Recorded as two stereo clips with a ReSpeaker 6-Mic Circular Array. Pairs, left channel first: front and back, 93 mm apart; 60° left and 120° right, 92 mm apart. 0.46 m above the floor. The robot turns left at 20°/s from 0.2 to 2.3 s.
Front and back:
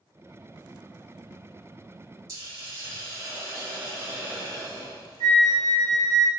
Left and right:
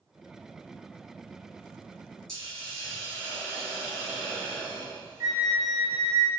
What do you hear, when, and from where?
2.3 s a hiss: 140° left, 1.6 m
5.2 s a flute: 170° right, 0.5 m